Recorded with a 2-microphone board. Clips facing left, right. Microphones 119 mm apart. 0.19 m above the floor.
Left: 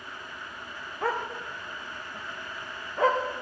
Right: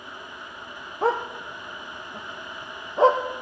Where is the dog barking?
30° right (ahead or behind), 1.5 m.